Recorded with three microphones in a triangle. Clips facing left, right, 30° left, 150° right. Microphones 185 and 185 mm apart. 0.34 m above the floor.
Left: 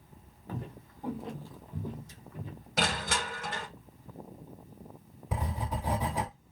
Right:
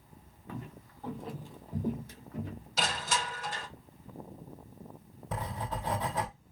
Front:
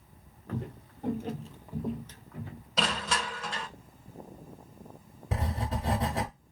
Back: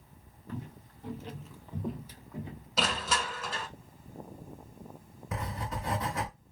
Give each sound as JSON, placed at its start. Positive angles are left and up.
{"t": 0.5, "sound": "footsteps", "azimuth_deg": 45, "distance_m": 0.9}
{"t": 2.8, "sound": "crushing", "azimuth_deg": 125, "distance_m": 0.7}
{"t": 5.3, "sound": "writing", "azimuth_deg": 25, "distance_m": 1.0}